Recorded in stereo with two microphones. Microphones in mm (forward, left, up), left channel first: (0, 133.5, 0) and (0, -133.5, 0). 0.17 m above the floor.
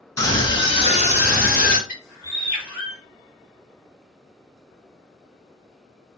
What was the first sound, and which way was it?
A scream, 10° left (ahead or behind).